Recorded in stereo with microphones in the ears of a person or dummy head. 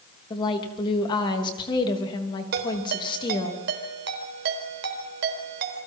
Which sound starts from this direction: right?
A ringtone, at 2.5 s.